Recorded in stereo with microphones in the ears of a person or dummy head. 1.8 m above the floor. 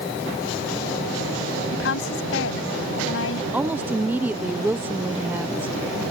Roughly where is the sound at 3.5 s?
Centre.